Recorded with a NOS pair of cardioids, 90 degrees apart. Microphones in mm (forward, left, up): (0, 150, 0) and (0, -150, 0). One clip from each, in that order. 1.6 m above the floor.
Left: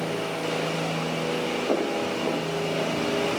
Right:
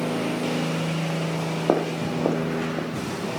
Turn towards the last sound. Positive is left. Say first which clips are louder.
# right 5 dB
turn(degrees=-65)